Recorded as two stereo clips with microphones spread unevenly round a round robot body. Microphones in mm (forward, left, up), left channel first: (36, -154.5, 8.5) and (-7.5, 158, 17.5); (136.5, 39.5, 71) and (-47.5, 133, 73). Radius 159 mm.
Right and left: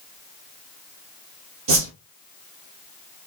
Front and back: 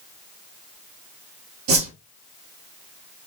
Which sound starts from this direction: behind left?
A whoosh, at 1.7 s.